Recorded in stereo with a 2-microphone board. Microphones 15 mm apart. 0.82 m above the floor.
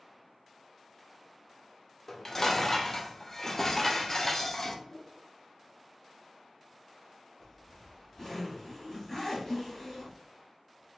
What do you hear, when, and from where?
2.1 s dishes clattering: 25° left (ahead or behind), 0.6 m
4.8 s a whoosh: 50° left (ahead or behind), 1.4 m
7.4 s a zipper: 35° left (ahead or behind), 1.8 m